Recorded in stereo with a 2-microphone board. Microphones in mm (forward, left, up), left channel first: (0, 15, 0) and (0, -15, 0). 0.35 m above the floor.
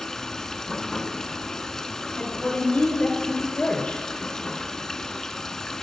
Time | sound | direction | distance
0.0 | running water | 15° left (ahead or behind) | 0.7 m
2.1 | a woman speaking | 35° left (ahead or behind) | 4.5 m